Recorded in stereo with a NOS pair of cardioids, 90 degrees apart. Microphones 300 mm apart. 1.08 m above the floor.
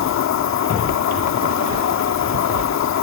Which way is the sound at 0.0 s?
65° left.